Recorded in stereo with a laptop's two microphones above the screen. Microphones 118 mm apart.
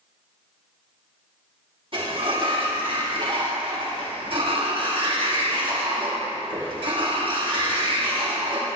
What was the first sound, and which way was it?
A sliding door, 50° right (ahead or behind).